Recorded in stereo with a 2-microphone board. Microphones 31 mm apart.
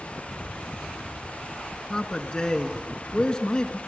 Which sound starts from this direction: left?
A man speaking, at 1.9 s.